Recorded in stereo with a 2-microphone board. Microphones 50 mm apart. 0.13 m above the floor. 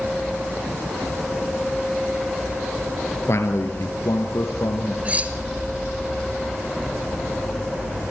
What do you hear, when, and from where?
3.3 s a man speaking: 60° left (ahead or behind), 2.5 m; by 5.0 s 70° left (ahead or behind), 3.5 m
5.0 s cutlery clinking: 25° right (ahead or behind), 1.6 m